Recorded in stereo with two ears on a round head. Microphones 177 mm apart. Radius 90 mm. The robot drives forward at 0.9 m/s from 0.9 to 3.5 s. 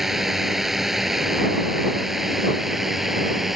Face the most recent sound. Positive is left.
turn(degrees=0)  # may be behind; listen again after turning